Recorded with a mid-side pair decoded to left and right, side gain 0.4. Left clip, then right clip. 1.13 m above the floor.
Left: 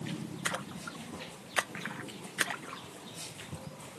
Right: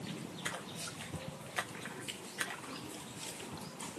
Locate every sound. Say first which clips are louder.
0.5 s a splash: left 6 dB; 60° left, 0.6 m